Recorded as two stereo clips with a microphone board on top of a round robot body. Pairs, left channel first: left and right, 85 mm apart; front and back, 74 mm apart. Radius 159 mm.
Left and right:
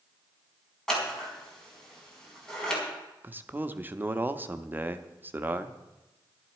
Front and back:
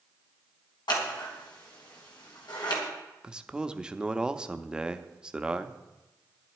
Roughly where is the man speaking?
Behind right.